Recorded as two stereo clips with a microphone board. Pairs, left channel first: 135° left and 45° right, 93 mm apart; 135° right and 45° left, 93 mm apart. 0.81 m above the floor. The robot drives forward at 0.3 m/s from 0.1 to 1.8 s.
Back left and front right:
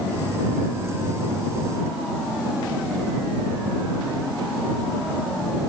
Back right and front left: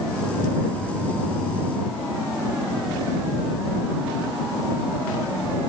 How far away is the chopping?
No chopping in this recording.